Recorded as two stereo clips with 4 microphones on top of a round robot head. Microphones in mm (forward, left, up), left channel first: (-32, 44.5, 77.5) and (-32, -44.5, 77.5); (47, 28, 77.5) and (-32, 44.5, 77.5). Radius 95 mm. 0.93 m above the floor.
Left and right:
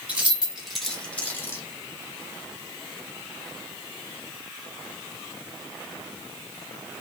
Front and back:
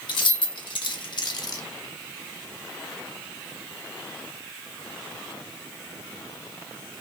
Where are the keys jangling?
15° right, 1.5 m; by 1.6 s 30° left, 1.1 m.